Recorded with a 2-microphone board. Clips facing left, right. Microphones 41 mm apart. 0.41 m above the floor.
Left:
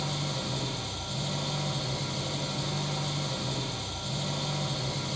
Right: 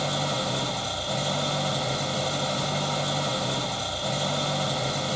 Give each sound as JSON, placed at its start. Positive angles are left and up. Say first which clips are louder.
{"t": 0.0, "sound": "an engine running", "louder": "right 7 dB", "side_deg": -50, "distance_m": 5.0}